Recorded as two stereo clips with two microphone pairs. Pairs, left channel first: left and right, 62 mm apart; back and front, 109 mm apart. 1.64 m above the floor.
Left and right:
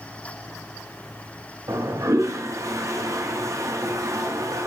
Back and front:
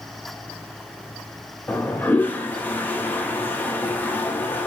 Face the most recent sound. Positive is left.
turn(degrees=-105)